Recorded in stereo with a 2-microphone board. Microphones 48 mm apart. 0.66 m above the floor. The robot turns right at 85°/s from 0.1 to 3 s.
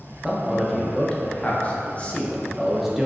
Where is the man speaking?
15° right (ahead or behind), 0.8 m; by 3.1 s 10° right (ahead or behind), 0.8 m.